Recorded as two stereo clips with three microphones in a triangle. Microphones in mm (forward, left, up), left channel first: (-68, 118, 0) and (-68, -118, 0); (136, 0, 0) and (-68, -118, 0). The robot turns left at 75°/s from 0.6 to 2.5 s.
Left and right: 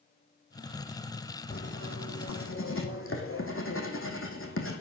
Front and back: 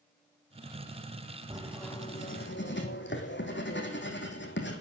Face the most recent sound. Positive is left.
turn(degrees=65)